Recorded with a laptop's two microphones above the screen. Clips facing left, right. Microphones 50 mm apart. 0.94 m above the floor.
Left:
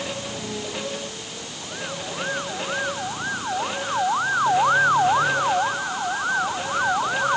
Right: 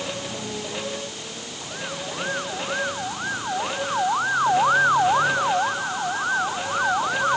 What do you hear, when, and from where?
Only background noise.